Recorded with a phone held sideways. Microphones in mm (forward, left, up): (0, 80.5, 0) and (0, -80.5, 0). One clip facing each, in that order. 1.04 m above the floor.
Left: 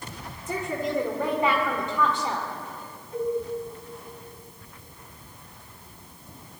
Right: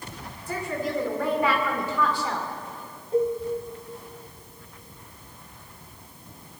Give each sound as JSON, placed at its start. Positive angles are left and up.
{"t": 0.5, "sound": "a woman speaking", "side_deg": 25, "distance_m": 2.5}
{"t": 3.1, "sound": "a cowbell", "side_deg": -30, "distance_m": 1.8}